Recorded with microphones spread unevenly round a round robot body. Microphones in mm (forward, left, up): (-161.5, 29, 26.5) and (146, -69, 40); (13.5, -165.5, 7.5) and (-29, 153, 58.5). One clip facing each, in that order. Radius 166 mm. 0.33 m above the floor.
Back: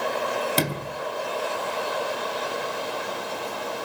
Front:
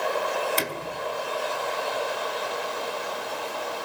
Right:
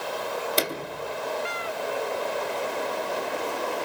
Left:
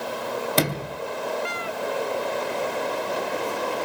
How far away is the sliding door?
About 2.5 m.